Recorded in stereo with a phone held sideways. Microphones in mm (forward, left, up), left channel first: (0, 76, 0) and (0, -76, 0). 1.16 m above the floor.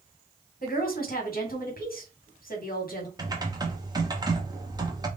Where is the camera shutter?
I don't hear a camera shutter.